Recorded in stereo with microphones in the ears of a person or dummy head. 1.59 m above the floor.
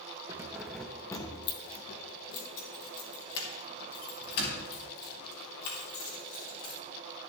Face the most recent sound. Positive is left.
turn(degrees=65)  # may be behind; listen again after turning